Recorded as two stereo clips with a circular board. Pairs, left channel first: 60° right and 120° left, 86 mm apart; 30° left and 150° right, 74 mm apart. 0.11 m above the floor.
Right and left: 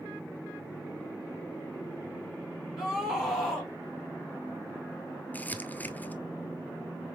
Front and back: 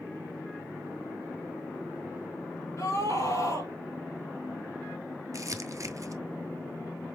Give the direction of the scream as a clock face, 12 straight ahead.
11 o'clock.